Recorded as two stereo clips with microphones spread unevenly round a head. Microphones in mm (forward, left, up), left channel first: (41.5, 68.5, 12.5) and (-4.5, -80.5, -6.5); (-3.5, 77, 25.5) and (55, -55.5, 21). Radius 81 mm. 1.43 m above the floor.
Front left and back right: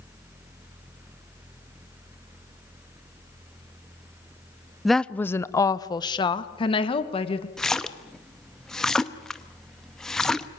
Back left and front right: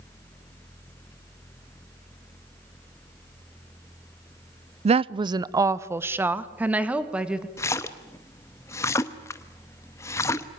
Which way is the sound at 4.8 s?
20° right.